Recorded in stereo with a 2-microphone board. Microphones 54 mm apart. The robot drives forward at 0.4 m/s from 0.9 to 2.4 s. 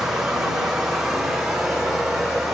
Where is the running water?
10° right (ahead or behind), 1.5 m; by 2.5 s 5° right (ahead or behind), 2 m.